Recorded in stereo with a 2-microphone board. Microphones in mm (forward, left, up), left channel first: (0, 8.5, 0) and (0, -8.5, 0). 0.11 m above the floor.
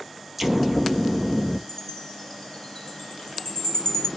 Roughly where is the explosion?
Centre.